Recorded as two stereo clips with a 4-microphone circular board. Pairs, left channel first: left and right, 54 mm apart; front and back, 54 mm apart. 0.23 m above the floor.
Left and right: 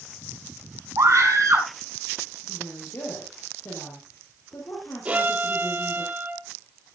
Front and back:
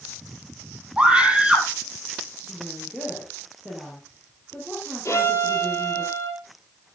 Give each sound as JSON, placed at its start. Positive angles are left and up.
{"t": 1.0, "sound": "a scream", "azimuth_deg": -110, "distance_m": 5.0}
{"t": 2.5, "sound": "a woman speaking", "azimuth_deg": 80, "distance_m": 5.0}
{"t": 5.0, "sound": "a violin", "azimuth_deg": -30, "distance_m": 6.0}